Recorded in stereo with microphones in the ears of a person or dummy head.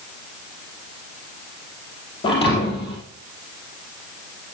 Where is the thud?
30° left (ahead or behind), 5.5 m.